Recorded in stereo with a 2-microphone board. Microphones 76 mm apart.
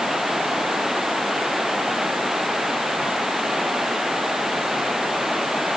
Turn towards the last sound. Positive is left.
turn(degrees=-5)  # may be behind; listen again after turning